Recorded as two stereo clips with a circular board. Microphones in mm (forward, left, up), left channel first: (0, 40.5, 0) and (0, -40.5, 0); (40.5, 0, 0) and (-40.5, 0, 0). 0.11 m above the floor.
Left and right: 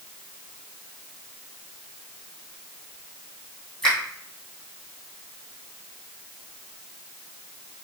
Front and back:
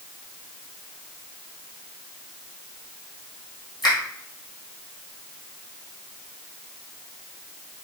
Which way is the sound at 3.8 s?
15° left.